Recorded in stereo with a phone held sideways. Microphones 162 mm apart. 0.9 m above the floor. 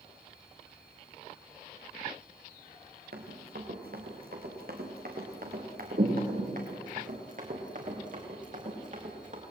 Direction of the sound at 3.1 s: 75° right (ahead or behind).